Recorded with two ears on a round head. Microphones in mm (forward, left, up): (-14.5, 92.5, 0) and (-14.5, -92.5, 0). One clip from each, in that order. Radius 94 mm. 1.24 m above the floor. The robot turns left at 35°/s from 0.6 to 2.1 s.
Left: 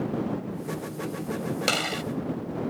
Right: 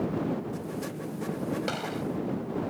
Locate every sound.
1.7 s a gunshot: 85° left